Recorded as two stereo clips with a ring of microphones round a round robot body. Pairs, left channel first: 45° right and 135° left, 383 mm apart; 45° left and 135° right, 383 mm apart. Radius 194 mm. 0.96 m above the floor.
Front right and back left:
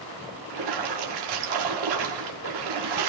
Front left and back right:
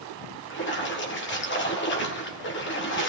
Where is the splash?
105° left, 1.5 m.